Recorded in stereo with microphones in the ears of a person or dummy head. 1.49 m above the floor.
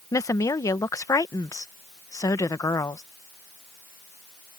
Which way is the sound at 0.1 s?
15° left (ahead or behind).